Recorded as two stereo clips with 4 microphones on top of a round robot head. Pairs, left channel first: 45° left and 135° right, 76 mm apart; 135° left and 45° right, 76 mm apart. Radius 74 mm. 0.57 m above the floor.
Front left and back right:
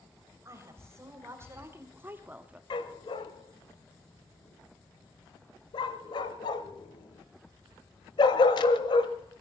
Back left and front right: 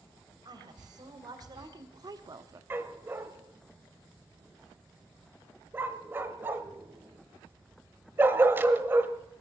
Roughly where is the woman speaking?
Right.